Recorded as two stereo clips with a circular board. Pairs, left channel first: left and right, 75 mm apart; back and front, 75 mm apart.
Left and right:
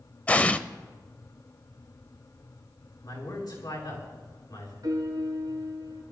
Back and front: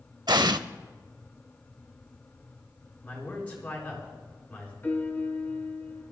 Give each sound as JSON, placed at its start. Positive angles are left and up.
{"t": 0.3, "sound": "an explosion", "azimuth_deg": 20, "distance_m": 0.5}
{"t": 3.0, "sound": "a man speaking", "azimuth_deg": 110, "distance_m": 6.0}
{"t": 4.8, "sound": "a piano", "azimuth_deg": -115, "distance_m": 2.0}